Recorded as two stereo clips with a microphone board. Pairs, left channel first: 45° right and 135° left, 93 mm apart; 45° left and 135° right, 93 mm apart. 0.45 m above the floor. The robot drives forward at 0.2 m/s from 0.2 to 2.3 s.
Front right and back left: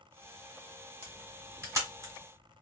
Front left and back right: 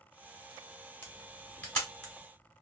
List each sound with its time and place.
1.0 s a camera shutter: 100° left, 1.4 m; by 2.1 s 120° left, 1.5 m